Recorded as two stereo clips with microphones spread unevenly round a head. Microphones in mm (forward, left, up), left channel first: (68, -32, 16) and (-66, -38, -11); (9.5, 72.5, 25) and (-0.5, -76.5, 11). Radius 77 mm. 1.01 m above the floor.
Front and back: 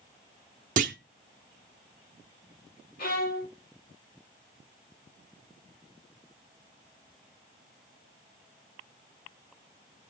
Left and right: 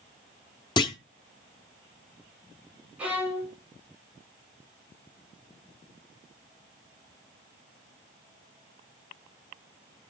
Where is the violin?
15° right, 3 m.